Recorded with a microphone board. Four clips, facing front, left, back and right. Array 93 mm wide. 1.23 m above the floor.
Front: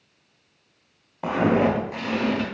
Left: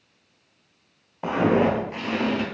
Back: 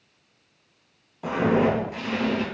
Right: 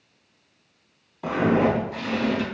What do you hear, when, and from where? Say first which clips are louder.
1.2 s footsteps: left 1 dB, front 1 dB; 55° left, 1.7 m; by 2.5 s 75° left, 1.4 m